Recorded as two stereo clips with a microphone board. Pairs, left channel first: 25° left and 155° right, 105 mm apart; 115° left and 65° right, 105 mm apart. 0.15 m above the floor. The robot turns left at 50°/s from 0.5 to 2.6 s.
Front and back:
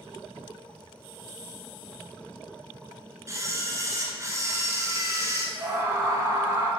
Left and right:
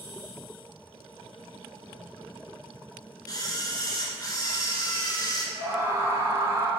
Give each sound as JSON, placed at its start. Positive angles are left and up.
{"t": 3.3, "sound": "a camera shutter", "azimuth_deg": 150, "distance_m": 1.2}
{"t": 5.5, "sound": "a scream", "azimuth_deg": -115, "distance_m": 1.8}